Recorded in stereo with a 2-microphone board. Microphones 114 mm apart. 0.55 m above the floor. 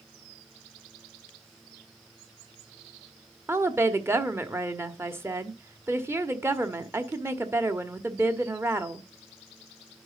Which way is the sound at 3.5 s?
20° right (ahead or behind).